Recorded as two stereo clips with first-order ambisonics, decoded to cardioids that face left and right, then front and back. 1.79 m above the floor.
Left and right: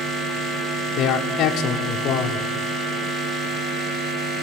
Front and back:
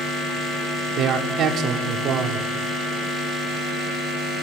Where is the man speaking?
135° left, 0.8 m.